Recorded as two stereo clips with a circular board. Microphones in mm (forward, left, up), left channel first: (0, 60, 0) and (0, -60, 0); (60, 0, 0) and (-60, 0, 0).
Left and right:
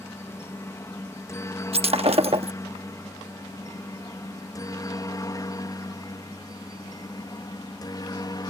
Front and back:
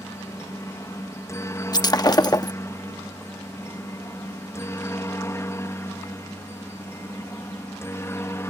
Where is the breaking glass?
55° right.